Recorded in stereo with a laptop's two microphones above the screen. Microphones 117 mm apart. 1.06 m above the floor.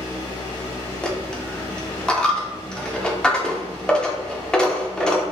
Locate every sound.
0.0 s a fan: 35° left (ahead or behind), 1.3 m
1.0 s a dropped coin: 5° left (ahead or behind), 0.6 m